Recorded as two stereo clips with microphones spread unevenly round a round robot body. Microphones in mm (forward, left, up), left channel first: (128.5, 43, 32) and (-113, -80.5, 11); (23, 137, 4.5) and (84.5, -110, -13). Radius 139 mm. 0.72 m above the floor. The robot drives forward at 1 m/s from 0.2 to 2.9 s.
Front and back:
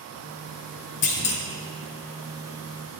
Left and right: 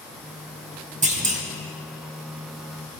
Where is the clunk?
20° right, 2.5 m.